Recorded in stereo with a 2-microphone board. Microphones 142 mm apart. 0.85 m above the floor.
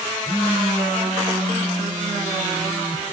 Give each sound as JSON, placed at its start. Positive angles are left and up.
{"t": 0.2, "sound": "a phone buzzing", "side_deg": 0, "distance_m": 9.0}